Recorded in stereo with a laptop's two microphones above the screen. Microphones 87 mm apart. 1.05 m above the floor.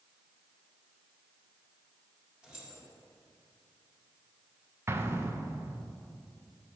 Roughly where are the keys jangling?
Centre.